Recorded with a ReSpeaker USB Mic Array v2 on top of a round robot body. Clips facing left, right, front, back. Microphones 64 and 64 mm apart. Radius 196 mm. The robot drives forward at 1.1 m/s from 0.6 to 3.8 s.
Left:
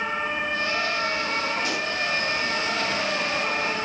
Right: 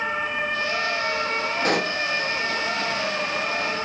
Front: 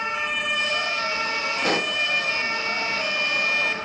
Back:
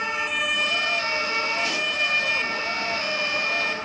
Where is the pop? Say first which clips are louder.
Right 4 dB, front 3 dB; 45° right, 0.8 m; by 2.0 s 75° right, 0.5 m.